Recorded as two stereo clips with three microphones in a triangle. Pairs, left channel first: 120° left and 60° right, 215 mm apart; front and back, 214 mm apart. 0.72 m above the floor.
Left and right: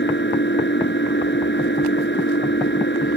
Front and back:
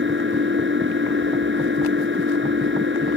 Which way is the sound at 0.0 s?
150° left.